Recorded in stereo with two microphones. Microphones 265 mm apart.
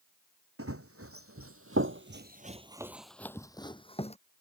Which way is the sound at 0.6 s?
60° right (ahead or behind).